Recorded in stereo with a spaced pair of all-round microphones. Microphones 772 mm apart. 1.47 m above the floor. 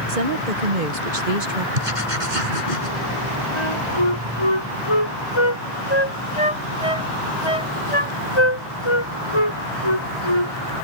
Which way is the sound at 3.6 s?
40° left (ahead or behind).